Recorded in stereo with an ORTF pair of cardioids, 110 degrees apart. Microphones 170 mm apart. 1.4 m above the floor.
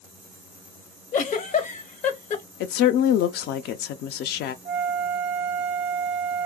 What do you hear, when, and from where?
1.1 s a giggle: 45° left, 0.7 m
2.6 s a woman speaking: 70° left, 0.5 m
4.7 s a flute: 45° right, 0.6 m